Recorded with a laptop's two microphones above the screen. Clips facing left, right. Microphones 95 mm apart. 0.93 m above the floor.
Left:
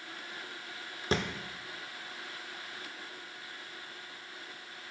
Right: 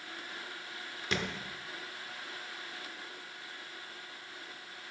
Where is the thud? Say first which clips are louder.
Left 4 dB; 35° left (ahead or behind), 0.8 m.